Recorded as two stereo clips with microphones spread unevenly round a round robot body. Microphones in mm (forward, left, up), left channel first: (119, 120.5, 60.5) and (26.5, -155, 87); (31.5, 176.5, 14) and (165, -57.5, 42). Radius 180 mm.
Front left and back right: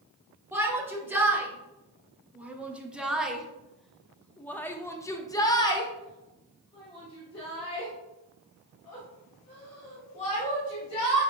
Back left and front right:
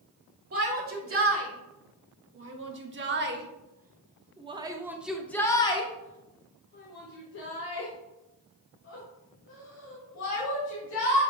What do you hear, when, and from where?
0.5 s a shout: 25° right, 2.5 m; by 11.2 s 145° left, 3 m